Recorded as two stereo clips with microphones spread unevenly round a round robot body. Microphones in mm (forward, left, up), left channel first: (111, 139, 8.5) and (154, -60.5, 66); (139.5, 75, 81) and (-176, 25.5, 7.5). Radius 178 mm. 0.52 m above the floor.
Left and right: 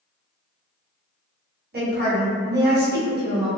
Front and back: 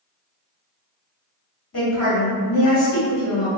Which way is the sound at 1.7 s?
35° right.